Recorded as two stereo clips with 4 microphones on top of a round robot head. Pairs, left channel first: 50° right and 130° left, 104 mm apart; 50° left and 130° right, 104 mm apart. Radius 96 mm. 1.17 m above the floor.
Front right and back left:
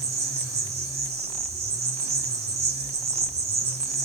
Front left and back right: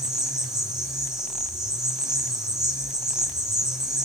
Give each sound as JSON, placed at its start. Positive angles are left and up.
{"t": 0.0, "sound": "an insect", "azimuth_deg": 145, "distance_m": 1.0}